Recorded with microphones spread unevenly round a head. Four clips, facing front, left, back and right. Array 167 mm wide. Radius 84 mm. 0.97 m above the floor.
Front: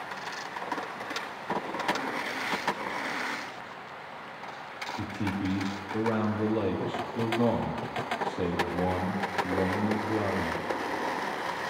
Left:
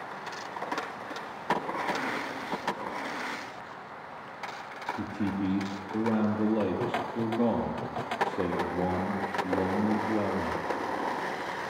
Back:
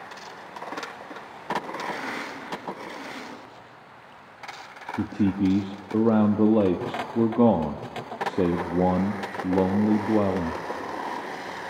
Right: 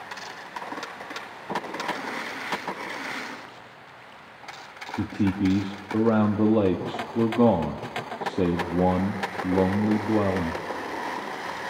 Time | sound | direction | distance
5.0 | a man speaking | 145° right | 2 m